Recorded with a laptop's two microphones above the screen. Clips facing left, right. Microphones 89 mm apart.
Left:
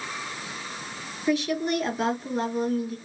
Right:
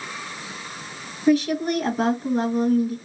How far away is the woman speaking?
About 1.4 m.